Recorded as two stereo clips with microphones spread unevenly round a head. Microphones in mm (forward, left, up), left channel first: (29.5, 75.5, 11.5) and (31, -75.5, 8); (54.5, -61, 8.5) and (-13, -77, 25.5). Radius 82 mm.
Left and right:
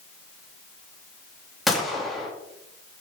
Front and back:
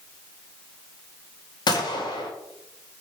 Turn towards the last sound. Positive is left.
turn(degrees=0)